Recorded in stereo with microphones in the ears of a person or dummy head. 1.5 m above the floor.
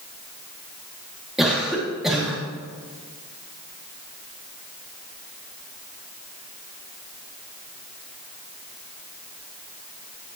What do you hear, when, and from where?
1.4 s a cough: 5° right (ahead or behind), 2.5 m